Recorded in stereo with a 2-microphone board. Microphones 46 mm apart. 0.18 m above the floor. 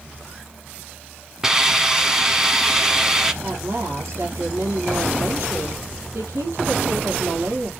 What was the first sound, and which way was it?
A hiss, 10° right (ahead or behind).